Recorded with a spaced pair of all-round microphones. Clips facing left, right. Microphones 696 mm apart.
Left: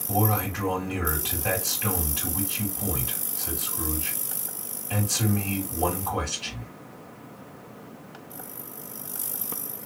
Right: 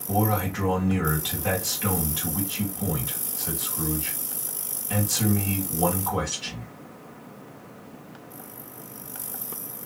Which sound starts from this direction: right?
A man speaking, at 0.1 s.